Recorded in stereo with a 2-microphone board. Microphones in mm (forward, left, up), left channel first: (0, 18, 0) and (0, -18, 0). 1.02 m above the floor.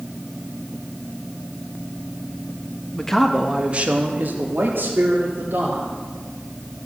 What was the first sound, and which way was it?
A man speaking, 20° left (ahead or behind).